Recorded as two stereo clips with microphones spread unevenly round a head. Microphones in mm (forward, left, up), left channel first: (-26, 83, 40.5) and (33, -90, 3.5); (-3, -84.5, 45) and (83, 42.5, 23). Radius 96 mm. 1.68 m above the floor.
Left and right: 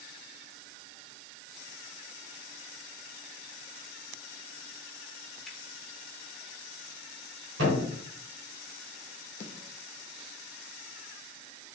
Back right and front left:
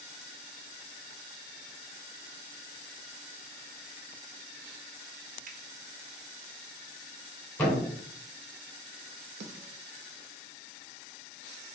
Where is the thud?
50° right, 2.5 m.